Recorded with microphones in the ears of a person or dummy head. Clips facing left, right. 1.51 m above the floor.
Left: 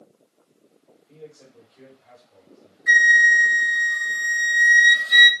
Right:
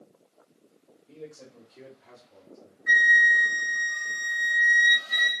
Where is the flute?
40° left (ahead or behind), 0.7 m.